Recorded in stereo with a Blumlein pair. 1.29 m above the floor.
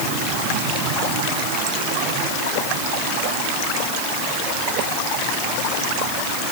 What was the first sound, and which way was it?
Only background noise.